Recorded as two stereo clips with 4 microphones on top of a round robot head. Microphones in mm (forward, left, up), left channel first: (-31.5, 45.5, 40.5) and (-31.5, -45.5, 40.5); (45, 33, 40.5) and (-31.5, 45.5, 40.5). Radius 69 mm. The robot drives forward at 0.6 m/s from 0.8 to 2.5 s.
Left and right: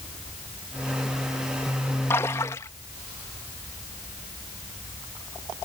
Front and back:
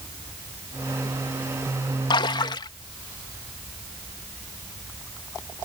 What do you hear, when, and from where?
2.1 s a splash: 20° left